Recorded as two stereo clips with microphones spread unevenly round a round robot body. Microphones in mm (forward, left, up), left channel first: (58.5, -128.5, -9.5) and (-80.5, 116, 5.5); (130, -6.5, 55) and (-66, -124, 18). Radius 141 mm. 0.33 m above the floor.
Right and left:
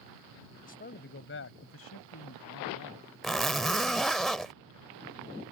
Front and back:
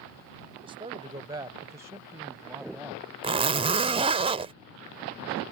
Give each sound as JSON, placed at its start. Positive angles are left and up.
{"t": 0.6, "sound": "a man speaking", "azimuth_deg": -105}
{"t": 3.2, "sound": "a zipper", "azimuth_deg": -145}